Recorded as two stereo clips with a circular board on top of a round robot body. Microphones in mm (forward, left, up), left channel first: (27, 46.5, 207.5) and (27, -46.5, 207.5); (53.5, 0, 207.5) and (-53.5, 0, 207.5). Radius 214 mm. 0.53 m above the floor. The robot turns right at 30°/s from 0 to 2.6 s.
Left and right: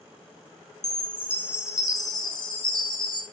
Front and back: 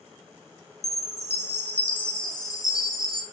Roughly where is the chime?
Ahead.